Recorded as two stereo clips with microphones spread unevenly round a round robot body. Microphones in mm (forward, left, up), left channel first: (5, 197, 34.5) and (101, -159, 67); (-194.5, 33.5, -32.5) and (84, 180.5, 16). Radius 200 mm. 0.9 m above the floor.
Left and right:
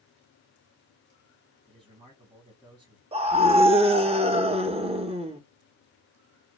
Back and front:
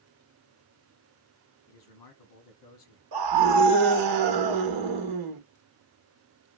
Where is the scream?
Straight ahead, 1.0 m.